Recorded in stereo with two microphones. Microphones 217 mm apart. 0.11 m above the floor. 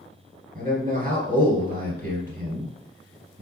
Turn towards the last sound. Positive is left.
turn(degrees=-40)  # may be behind; listen again after turning